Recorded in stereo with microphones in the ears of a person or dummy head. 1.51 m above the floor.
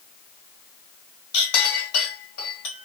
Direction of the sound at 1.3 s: 70° left (ahead or behind).